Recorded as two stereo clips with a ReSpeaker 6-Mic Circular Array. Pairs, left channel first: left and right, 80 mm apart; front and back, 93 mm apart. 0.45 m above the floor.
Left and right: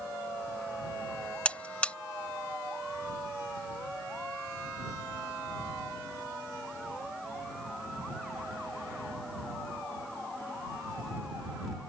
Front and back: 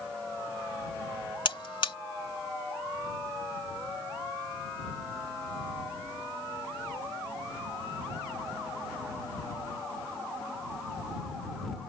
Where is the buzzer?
15° left.